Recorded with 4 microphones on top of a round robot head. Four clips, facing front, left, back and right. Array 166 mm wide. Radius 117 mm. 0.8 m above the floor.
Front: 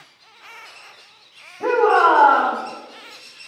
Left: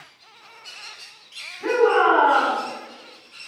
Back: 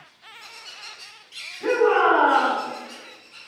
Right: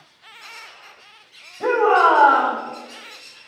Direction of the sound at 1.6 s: 55° right.